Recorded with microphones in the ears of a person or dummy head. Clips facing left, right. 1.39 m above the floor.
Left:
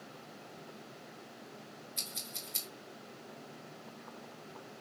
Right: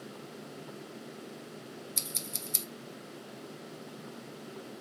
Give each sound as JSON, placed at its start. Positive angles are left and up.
{"t": 2.0, "sound": "scissors", "side_deg": -55, "distance_m": 1.0}